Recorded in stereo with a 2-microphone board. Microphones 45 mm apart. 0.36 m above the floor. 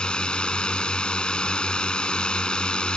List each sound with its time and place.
0.0 s a drone: 20° left (ahead or behind)